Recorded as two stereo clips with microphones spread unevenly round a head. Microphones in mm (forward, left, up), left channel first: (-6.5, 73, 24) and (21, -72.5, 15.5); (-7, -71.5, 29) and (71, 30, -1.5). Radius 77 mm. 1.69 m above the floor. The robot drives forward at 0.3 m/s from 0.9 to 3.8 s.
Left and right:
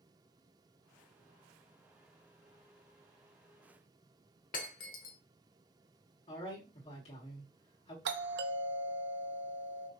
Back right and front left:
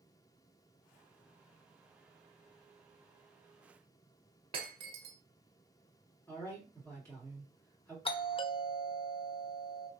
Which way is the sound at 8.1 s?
80° right.